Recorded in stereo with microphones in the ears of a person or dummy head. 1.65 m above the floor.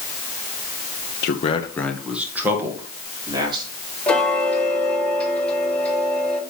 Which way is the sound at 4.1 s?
5° left (ahead or behind).